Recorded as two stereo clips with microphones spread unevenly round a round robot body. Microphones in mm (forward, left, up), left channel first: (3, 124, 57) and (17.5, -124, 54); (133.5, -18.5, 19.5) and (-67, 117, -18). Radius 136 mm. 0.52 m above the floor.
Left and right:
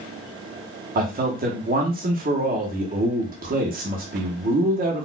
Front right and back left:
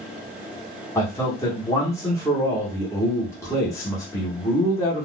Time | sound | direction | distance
0.9 | a man speaking | 115° right | 0.9 m